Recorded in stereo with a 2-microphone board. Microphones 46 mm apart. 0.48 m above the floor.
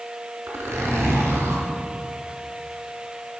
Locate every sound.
0.5 s a zipper: 80° right, 3 m